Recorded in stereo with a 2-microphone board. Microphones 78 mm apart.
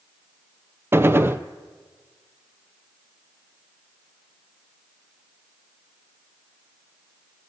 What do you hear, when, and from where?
0.9 s a gunshot: 30° right (ahead or behind), 0.8 m